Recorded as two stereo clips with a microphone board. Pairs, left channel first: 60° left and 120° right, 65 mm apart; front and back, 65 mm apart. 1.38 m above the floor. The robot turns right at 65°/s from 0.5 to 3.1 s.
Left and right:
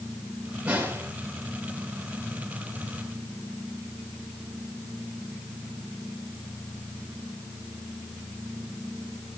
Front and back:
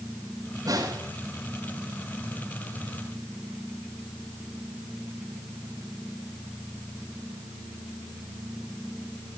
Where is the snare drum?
170° left, 5.5 m; by 1.1 s 165° right, 5.5 m.